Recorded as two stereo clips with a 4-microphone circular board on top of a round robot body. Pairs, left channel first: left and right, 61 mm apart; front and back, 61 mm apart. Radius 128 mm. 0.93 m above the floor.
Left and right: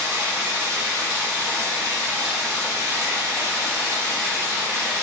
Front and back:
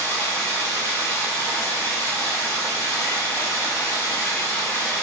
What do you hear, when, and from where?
0.0 s running water: 45° right, 0.9 m